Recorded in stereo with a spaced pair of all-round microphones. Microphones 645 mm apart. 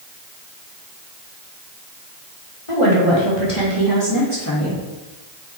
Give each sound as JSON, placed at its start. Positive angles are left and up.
{"t": 2.7, "sound": "a woman speaking", "side_deg": 55, "distance_m": 2.0}